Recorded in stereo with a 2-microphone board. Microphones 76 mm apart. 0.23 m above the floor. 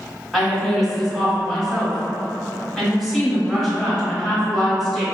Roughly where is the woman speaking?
Centre.